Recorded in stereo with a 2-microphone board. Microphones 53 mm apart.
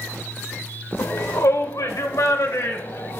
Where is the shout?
45° left (ahead or behind), 0.7 m.